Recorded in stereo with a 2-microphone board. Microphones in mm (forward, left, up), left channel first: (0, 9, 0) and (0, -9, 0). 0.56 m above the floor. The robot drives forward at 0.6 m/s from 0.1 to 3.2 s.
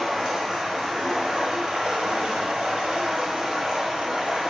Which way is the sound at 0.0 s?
35° right (ahead or behind).